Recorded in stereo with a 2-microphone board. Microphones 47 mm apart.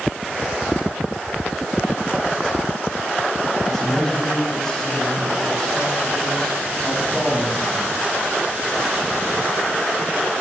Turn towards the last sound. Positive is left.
turn(degrees=5)  # may be behind; listen again after turning